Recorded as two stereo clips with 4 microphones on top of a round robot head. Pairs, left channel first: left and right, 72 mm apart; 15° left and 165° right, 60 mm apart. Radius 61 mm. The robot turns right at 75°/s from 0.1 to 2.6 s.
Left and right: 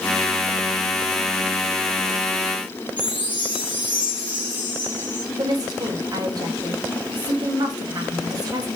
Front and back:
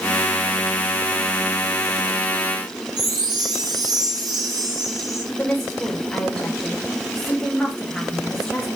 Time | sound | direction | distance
3.0 | a chime | 160° right | 3.5 m
5.4 | a woman speaking | 70° right | 3 m